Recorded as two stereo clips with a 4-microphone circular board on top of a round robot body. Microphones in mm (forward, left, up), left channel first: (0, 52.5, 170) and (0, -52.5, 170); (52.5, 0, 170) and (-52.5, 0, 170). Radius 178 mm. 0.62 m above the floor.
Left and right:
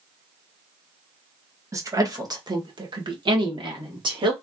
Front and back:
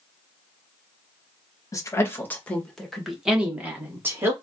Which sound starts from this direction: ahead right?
A woman speaking, at 1.7 s.